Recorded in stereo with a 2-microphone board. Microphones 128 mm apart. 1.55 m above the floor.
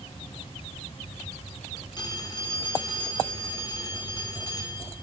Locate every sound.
2.0 s a phone ringing: 35° left (ahead or behind), 3.5 m